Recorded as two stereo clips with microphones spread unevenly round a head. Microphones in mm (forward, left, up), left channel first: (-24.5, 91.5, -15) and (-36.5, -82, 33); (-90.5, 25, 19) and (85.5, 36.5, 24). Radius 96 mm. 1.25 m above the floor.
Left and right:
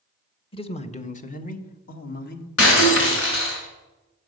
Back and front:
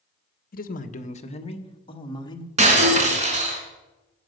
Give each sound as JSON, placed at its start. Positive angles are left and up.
{"t": 0.5, "sound": "a man speaking", "azimuth_deg": 145, "distance_m": 1.2}
{"t": 2.6, "sound": "breaking glass", "azimuth_deg": 50, "distance_m": 3.0}